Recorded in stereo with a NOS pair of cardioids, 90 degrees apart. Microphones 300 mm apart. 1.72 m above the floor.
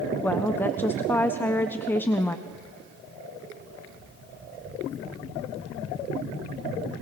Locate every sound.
0.2 s a woman speaking: 5° left, 1.2 m
2.5 s footsteps: 30° right, 7.5 m